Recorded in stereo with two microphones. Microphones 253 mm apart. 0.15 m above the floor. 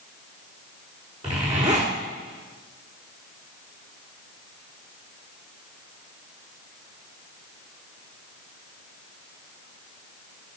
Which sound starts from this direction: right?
A zipper, at 1.2 s.